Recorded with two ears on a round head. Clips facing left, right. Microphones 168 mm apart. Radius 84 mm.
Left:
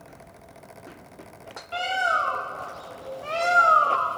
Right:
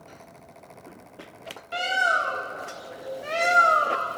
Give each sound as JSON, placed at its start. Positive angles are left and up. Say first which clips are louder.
{"t": 1.7, "sound": "a bird", "louder": "left 1 dB", "side_deg": -20}